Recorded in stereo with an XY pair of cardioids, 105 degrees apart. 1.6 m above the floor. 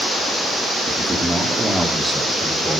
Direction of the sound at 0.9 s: 10° right.